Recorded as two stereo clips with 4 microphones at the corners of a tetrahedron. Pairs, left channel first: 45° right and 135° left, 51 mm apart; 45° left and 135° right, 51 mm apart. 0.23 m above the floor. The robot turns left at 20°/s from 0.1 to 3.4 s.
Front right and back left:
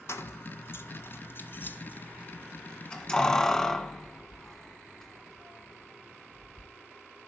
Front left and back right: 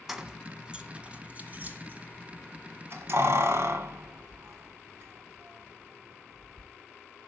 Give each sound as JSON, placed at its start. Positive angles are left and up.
{"t": 0.1, "sound": "keys jangling", "azimuth_deg": -55, "distance_m": 1.6}